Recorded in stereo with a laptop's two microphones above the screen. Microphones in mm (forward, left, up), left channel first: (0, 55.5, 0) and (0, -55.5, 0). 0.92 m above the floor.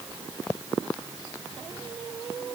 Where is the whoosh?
I don't hear a whoosh.